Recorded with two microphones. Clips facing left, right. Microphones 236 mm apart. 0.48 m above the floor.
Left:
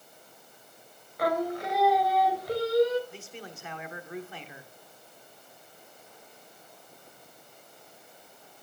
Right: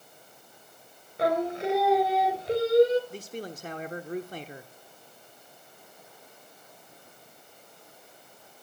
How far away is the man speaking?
About 1.1 m.